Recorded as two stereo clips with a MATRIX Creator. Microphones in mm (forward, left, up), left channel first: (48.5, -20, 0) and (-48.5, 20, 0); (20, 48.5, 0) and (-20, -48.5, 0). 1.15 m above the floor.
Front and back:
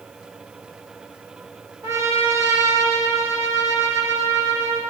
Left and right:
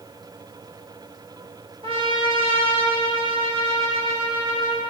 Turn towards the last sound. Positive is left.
turn(degrees=-140)